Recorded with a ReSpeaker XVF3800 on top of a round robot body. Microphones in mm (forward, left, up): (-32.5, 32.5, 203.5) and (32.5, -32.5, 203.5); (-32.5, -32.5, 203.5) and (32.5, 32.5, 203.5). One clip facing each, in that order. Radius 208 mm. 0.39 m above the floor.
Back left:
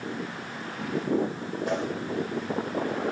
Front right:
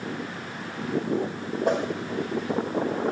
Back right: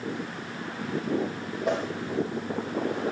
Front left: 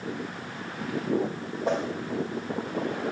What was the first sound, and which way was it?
A whoosh, 10° right.